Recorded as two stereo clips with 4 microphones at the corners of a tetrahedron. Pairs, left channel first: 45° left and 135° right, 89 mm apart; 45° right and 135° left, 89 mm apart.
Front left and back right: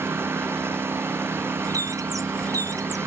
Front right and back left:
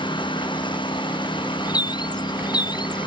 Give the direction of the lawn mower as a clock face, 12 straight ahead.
2 o'clock.